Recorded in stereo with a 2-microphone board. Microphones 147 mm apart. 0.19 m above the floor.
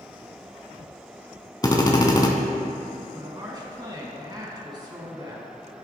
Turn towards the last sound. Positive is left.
turn(degrees=-30)  # may be behind; listen again after turning